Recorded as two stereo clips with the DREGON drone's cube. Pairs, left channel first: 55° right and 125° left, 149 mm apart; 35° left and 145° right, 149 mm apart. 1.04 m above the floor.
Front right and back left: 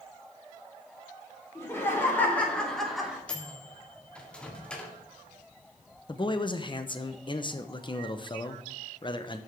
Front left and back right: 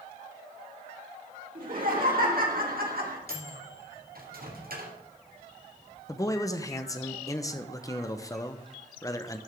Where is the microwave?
140° right, 2 m.